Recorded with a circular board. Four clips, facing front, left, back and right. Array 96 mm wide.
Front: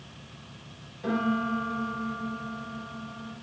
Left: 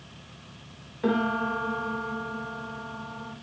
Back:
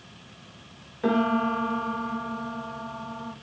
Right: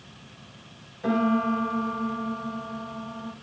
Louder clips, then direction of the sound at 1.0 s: Right 2 dB, back 4 dB; 140° left.